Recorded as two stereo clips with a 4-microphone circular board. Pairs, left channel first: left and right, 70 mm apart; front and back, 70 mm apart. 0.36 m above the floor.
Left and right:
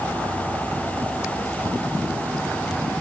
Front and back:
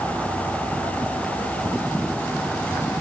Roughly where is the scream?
No scream in this recording.